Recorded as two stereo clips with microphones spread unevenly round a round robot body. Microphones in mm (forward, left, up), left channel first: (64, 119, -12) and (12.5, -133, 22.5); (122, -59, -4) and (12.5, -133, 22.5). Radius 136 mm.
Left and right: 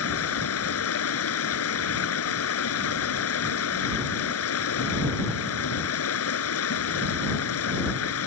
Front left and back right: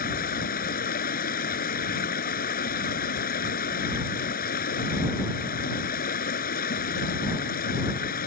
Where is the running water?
45° left.